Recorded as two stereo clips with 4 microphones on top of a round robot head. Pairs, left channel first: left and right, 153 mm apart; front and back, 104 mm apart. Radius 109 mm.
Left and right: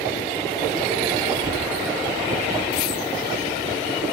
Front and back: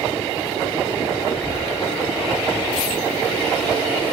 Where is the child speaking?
90° right, 1.1 m; by 4.1 s 135° right, 2 m.